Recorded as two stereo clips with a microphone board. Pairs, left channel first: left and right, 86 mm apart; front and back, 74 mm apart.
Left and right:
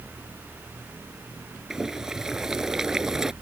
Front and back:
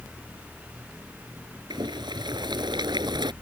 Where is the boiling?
175° right.